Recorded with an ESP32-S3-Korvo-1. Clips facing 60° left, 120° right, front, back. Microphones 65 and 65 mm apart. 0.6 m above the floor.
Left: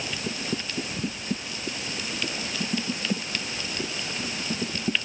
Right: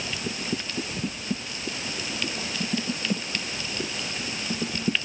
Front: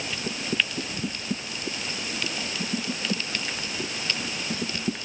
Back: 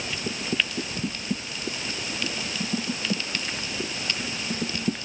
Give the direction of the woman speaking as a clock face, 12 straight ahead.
I don't hear a woman speaking.